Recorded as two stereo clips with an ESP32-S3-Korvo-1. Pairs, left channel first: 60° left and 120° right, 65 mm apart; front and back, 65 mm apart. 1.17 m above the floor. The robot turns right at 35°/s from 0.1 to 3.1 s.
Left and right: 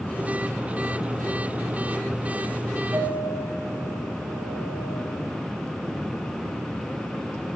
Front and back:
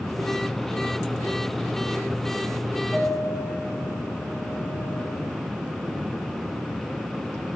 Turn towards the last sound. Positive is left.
turn(degrees=-60)